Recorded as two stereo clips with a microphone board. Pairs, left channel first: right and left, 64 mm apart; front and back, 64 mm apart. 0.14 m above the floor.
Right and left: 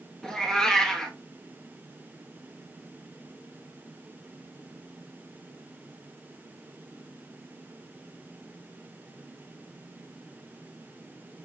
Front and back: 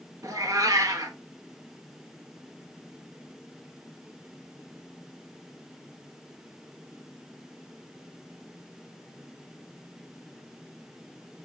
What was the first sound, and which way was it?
A cat meowing, 170° right.